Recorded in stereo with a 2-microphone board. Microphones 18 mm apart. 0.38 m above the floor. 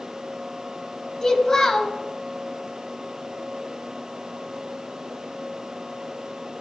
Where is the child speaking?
35° left (ahead or behind), 1.1 m.